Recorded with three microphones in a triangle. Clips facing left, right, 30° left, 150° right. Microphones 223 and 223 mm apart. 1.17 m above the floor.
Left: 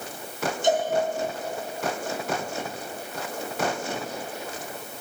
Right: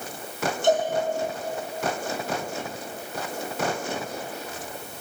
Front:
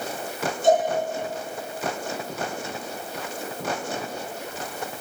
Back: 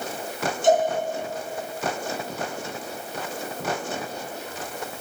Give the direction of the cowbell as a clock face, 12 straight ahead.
2 o'clock.